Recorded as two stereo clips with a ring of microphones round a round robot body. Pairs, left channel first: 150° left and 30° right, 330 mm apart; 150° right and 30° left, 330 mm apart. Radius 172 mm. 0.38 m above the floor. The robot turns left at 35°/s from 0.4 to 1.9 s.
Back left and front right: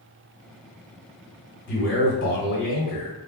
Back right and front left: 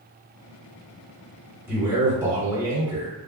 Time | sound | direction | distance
1.7 | a man speaking | 115° left | 1.7 m